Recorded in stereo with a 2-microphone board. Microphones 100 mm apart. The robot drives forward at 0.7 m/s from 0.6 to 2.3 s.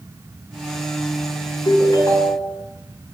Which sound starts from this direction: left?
A ringtone, at 1.6 s.